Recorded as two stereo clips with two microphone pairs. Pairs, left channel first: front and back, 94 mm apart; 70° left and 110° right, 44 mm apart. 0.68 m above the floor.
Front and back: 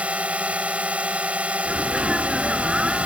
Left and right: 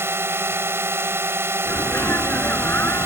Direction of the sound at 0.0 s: 105° right.